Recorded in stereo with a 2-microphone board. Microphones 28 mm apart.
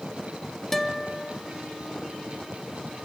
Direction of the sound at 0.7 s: 10° left (ahead or behind).